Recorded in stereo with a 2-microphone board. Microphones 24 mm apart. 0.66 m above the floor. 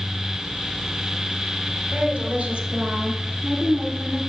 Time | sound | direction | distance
1.9 | a woman speaking | 60° right (ahead or behind) | 1.7 m